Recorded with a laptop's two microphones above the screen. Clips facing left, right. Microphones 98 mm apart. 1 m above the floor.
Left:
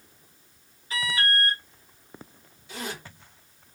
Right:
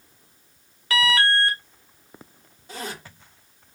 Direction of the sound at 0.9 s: 80° right.